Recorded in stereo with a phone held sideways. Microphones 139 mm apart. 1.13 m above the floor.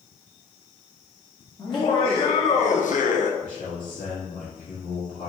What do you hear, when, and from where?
1.6 s laughter: 30° left (ahead or behind), 1.3 m; by 3.3 s 60° left (ahead or behind), 0.8 m
3.4 s a man speaking: 85° left, 2 m